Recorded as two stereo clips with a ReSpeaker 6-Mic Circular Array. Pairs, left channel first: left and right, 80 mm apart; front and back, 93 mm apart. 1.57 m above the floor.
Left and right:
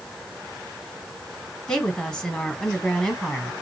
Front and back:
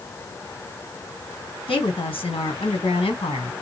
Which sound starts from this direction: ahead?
A woman speaking, at 1.7 s.